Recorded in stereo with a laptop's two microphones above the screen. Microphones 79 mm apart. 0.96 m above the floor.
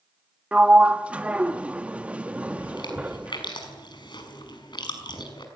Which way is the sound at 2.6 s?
70° left (ahead or behind).